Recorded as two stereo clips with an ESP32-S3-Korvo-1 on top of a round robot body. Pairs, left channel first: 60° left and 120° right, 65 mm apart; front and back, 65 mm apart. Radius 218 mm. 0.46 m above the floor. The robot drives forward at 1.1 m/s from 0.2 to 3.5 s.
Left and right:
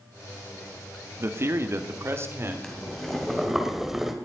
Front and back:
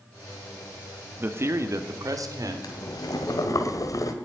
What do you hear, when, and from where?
1.2 s a man speaking: 140° right, 1.4 m; by 2.5 s 165° right, 2.5 m
2.6 s boiling: 20° right, 2.5 m; by 4.1 s 35° right, 1.4 m